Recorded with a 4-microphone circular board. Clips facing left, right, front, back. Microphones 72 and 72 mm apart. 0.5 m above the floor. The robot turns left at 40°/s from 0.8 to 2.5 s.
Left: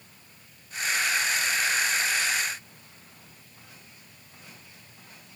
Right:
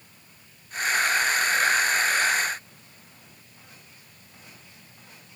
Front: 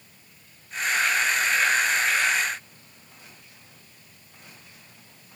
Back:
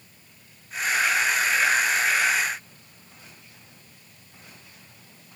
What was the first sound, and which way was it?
Only background noise.